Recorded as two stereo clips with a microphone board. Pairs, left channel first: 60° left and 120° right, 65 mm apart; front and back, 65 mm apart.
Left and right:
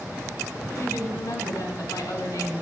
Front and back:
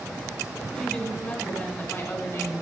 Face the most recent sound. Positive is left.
turn(degrees=40)